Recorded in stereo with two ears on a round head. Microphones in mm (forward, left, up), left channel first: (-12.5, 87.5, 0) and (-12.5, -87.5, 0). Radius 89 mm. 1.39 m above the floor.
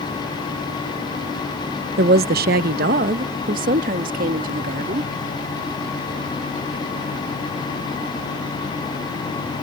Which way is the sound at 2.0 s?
50° right (ahead or behind).